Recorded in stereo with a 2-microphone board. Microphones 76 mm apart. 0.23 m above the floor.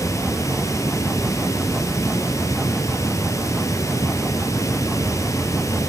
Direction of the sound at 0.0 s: 40° left (ahead or behind).